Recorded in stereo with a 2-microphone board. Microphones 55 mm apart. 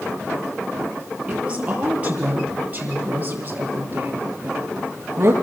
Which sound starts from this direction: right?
A woman speaking, at 1.3 s.